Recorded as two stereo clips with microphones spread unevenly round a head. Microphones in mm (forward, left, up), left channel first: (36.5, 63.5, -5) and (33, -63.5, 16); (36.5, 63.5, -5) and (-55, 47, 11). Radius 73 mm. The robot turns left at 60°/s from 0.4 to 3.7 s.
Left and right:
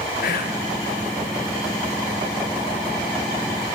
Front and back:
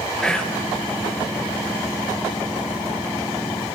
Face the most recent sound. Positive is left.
turn(degrees=-105)